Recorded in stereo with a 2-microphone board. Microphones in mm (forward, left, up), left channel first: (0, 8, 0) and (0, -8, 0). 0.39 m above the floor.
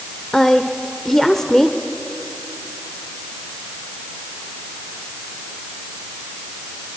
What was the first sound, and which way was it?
A woman speaking, 25° left (ahead or behind).